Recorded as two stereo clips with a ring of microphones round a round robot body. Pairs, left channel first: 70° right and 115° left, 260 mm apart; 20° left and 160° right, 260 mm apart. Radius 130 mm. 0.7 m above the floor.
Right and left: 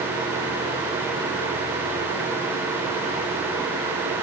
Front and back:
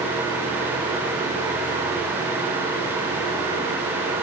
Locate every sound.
Only background noise.